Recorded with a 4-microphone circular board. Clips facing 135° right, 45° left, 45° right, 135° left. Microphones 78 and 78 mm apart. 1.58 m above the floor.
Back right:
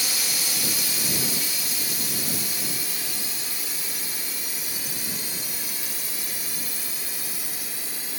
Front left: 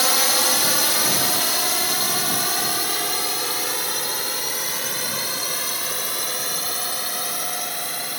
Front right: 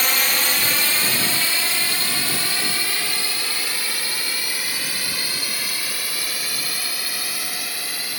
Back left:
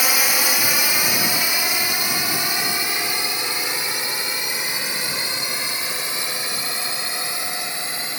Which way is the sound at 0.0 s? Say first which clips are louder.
Front left 11 dB, back left 1 dB; 55° left.